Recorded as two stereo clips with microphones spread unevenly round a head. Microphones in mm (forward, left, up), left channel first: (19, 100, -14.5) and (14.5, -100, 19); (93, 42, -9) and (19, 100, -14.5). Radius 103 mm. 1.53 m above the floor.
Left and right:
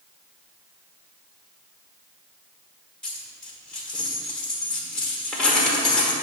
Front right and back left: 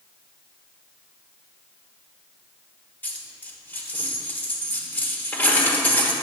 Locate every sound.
3.0 s a dropped coin: 15° right, 1.2 m